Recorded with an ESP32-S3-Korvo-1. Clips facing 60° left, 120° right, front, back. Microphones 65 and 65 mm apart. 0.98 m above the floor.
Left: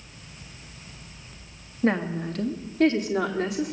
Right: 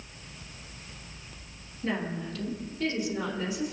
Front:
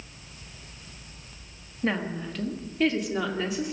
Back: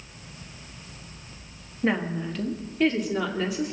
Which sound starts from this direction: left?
A woman speaking, at 1.8 s.